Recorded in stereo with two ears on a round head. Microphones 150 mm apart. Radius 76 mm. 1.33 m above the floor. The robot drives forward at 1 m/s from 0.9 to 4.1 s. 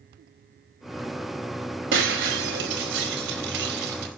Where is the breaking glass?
75° right (ahead or behind), 4.5 m.